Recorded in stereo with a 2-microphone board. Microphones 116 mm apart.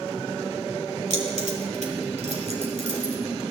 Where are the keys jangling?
90° right, 2 m; by 3.1 s 65° right (ahead or behind), 3 m.